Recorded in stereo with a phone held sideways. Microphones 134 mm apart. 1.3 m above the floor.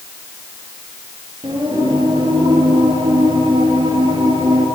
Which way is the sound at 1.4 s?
35° right (ahead or behind).